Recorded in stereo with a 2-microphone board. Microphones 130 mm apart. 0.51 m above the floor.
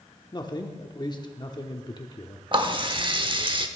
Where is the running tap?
40° right (ahead or behind), 0.9 m.